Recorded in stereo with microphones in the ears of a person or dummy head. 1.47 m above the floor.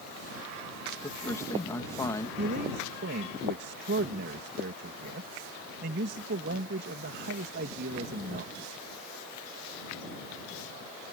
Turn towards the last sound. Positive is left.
turn(degrees=-55)  # may be behind; listen again after turning